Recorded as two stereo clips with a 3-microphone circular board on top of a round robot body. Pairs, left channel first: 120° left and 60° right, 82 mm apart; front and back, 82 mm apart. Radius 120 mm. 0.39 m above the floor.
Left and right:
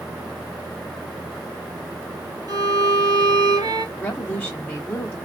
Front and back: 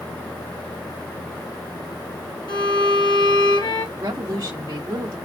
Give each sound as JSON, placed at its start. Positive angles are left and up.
{"t": 2.5, "sound": "a violin", "azimuth_deg": -25, "distance_m": 2.0}
{"t": 4.0, "sound": "a woman speaking", "azimuth_deg": -170, "distance_m": 1.0}